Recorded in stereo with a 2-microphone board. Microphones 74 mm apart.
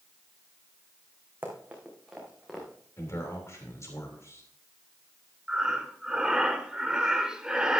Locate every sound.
1.4 s running footsteps: 25° right (ahead or behind), 3 m; by 2.7 s centre (ahead or behind), 3.5 m
3.0 s a man speaking: 45° left (ahead or behind), 3 m
5.5 s breathing: 10° right (ahead or behind), 1.0 m